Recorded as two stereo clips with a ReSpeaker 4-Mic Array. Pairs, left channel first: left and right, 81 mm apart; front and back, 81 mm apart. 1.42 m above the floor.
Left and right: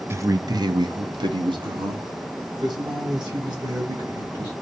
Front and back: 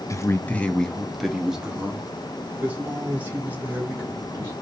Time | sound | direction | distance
0.1 | a man speaking | 40° right | 0.5 m